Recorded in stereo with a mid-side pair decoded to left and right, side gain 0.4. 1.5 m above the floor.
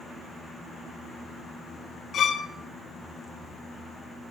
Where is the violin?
65° left, 0.7 m.